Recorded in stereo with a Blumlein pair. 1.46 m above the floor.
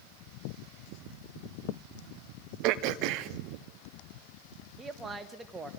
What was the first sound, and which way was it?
Throat clearing, 40° right.